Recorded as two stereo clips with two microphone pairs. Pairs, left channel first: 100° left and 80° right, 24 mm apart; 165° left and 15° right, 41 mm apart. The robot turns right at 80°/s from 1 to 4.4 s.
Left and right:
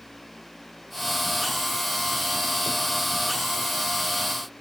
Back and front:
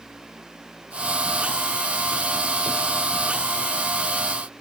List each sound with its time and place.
Only background noise.